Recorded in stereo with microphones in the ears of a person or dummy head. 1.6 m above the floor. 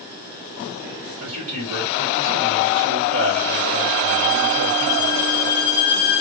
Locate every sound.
1.2 s a man speaking: 40° right (ahead or behind), 3.5 m